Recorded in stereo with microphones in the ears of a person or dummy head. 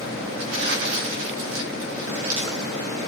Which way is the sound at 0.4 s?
85° right.